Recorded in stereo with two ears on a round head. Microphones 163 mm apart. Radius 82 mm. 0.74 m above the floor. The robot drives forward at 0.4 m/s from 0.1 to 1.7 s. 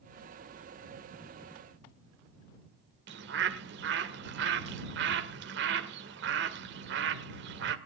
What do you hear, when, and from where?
3.1 s a bird: 70° right (ahead or behind), 1.8 m